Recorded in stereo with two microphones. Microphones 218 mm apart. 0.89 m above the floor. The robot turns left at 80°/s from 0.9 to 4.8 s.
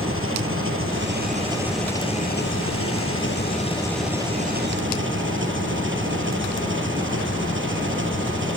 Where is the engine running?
110° right; by 8.6 s 65° right.